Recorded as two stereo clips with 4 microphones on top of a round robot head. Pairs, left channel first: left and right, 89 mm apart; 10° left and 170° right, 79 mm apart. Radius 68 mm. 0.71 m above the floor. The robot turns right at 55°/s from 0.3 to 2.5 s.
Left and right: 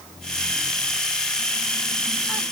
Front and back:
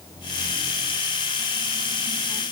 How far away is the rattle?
No rattle in this recording.